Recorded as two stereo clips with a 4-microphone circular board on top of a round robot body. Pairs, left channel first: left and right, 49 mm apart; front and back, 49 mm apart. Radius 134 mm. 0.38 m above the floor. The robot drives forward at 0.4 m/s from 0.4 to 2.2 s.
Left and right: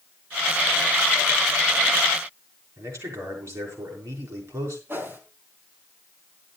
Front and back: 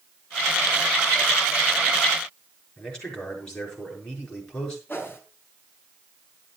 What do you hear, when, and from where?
2.8 s a man speaking: 75° right, 6 m
4.9 s a whoosh: 50° right, 3.5 m